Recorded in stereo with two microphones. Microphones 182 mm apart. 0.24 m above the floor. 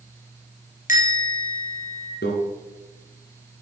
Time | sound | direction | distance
0.9 | a bell | 45° left (ahead or behind) | 3 m
2.2 | a microwave | 65° left (ahead or behind) | 1.8 m